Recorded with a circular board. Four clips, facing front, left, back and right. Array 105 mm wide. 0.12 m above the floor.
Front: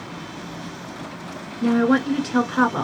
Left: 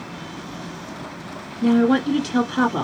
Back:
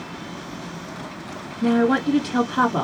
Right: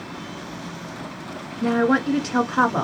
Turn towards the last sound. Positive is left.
turn(degrees=-65)